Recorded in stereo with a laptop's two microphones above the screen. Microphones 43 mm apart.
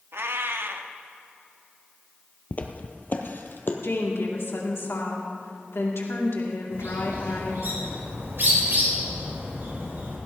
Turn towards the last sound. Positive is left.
turn(degrees=-65)  # may be behind; listen again after turning